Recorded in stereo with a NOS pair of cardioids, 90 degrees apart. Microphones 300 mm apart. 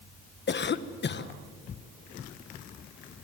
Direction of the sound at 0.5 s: 35° left.